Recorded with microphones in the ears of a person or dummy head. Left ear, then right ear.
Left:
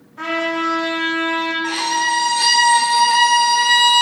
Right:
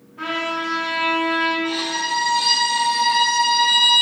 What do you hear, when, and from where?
0.2 s a trumpet: 60° left (ahead or behind), 1.5 m
1.6 s a violin: 45° left (ahead or behind), 0.5 m